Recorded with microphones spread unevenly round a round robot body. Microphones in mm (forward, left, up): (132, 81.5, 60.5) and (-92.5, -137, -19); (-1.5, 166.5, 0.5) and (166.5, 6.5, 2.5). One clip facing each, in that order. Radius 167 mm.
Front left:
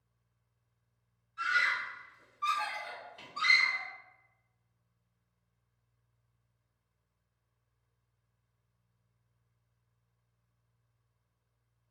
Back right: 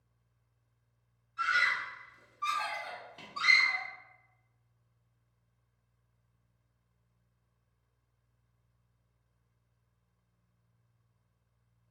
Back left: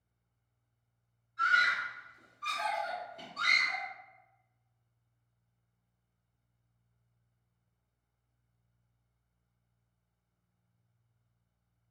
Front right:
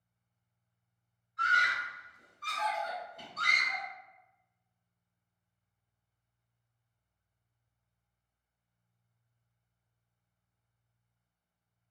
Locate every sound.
1.4 s a scream: 155° right, 1.1 m